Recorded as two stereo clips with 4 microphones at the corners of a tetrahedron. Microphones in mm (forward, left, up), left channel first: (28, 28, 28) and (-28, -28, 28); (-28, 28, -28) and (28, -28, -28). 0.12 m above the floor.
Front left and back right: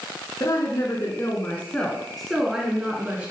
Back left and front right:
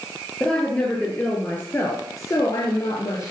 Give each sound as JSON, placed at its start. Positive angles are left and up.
{"t": 0.4, "sound": "a woman speaking", "azimuth_deg": 60, "distance_m": 1.8}